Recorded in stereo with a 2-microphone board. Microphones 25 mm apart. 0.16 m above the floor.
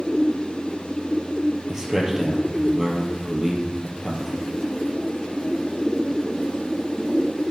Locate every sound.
1.7 s a man speaking: 20° right (ahead or behind), 3.5 m